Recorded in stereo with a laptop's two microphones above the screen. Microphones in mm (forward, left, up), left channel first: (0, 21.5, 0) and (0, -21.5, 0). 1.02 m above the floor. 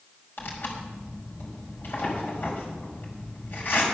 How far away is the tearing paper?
About 4.5 m.